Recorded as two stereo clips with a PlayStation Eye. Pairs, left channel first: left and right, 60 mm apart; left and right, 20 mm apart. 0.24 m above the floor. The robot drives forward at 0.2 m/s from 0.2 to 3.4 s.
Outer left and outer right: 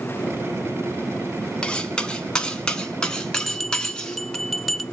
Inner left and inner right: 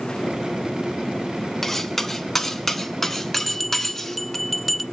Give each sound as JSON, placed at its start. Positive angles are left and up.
{"t": 1.6, "sound": "cutlery clinking", "side_deg": 15, "distance_m": 1.1}
{"t": 3.4, "sound": "a bell", "side_deg": 0, "distance_m": 1.1}